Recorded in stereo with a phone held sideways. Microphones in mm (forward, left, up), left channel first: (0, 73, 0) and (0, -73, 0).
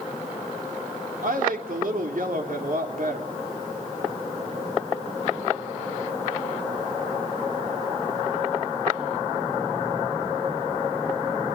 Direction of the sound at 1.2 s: 70° right (ahead or behind).